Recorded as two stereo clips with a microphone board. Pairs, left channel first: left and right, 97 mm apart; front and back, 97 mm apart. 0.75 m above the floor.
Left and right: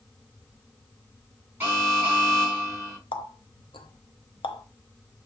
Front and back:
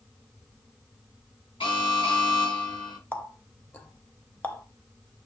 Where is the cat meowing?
I don't hear a cat meowing.